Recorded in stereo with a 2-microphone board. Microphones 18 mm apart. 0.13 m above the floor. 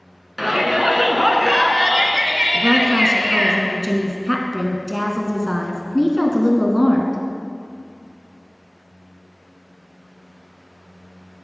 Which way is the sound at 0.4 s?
10° right (ahead or behind).